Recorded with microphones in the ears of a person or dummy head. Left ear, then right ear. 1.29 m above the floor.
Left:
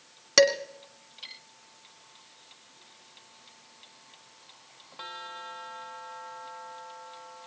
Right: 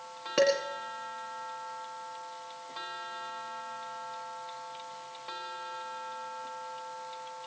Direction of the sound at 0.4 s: 80° left.